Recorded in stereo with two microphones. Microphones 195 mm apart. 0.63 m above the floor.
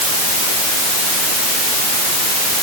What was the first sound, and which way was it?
Only background noise.